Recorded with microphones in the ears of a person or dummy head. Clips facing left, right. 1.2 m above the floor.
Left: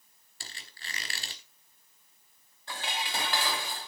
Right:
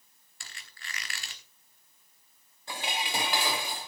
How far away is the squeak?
About 1.1 m.